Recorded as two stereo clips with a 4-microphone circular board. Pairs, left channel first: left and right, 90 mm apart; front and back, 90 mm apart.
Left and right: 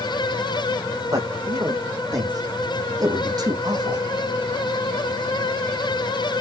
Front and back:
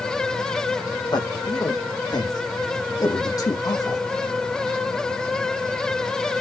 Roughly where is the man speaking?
Ahead right.